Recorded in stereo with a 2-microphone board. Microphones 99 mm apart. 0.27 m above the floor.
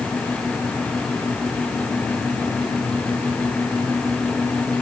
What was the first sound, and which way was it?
Only background noise.